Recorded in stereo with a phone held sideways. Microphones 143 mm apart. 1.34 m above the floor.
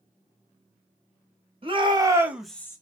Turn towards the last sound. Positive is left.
turn(degrees=20)  # may be behind; listen again after turning